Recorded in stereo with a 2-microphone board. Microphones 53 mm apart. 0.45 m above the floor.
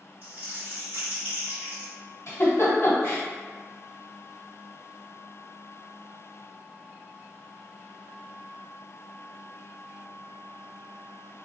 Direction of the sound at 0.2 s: 35° right (ahead or behind).